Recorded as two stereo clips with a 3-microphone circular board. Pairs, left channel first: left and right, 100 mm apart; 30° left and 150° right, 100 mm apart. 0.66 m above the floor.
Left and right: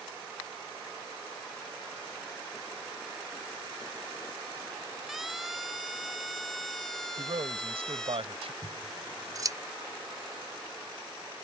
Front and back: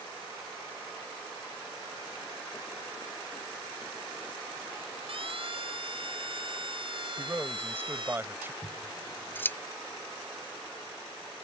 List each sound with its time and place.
5.1 s a siren: straight behind; by 8.2 s 175° left
7.2 s a man speaking: 80° right
8.6 s scissors: 40° right